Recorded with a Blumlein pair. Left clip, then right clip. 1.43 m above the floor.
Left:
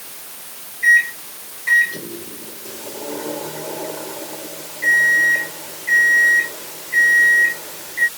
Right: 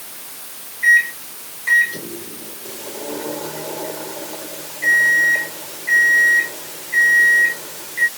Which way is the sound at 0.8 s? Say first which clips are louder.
Even; straight ahead.